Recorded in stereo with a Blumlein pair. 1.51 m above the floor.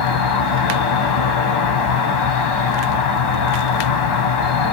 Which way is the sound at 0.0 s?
45° left.